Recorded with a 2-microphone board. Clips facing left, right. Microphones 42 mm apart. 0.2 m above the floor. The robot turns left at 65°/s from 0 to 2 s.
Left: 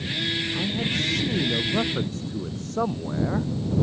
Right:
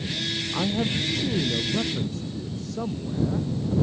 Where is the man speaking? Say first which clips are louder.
Right 1 dB; 135° right; by 3.5 s 130° left.